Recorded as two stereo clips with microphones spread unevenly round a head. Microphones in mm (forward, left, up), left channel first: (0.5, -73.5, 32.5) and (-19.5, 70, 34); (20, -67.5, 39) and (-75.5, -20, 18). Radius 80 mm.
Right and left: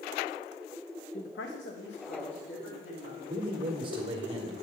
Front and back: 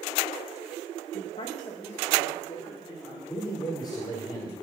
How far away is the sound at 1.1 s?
About 0.6 m.